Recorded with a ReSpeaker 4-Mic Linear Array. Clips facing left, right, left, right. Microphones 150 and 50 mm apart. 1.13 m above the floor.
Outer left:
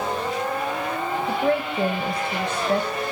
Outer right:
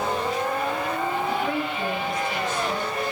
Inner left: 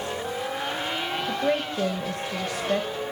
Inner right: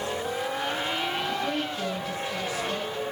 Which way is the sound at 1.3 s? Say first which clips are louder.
Outer left 4 dB, inner left 3 dB; 60° left (ahead or behind).